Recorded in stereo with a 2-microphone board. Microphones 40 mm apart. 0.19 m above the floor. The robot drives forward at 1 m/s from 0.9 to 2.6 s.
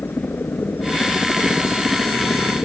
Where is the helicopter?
60° left (ahead or behind); by 2.6 s 65° left (ahead or behind).